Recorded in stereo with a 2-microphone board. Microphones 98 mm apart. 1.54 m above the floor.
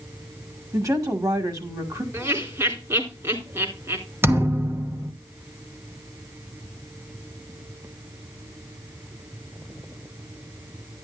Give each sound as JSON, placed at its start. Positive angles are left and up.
{"t": 0.7, "sound": "a woman speaking", "side_deg": -35, "distance_m": 2.0}
{"t": 2.1, "sound": "laughter", "side_deg": -30, "distance_m": 3.5}
{"t": 4.2, "sound": "a thud", "side_deg": -25, "distance_m": 0.9}